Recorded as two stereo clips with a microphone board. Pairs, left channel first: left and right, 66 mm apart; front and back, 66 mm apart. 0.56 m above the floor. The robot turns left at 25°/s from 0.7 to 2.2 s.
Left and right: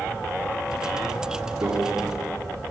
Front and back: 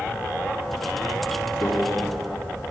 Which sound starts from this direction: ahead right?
A microwave, at 1.6 s.